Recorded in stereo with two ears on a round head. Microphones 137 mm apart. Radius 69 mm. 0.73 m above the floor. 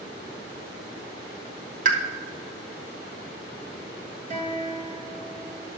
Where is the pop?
50° right (ahead or behind), 1.2 m.